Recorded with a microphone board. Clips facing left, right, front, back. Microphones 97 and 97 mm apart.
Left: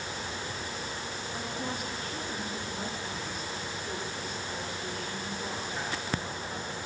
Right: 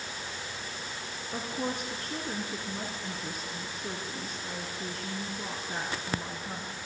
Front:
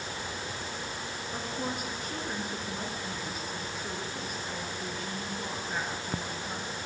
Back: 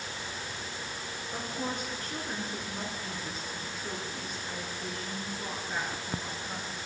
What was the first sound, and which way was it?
A woman speaking, 80° right.